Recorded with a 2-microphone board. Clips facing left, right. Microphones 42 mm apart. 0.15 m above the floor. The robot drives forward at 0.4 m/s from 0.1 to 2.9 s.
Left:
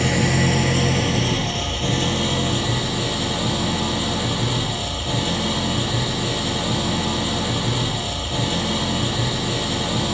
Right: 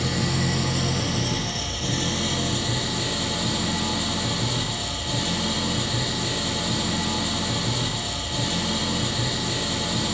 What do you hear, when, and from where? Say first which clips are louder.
0.0 s an engine running: left 6 dB; 55° left (ahead or behind), 1.2 m; by 10.1 s 30° left (ahead or behind), 1.9 m